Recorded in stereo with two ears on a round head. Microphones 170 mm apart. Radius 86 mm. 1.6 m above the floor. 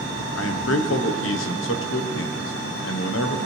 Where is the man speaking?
70° left (ahead or behind), 1.1 m.